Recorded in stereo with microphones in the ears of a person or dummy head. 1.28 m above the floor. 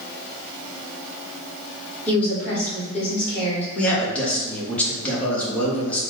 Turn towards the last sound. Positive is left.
turn(degrees=5)  # may be behind; listen again after turning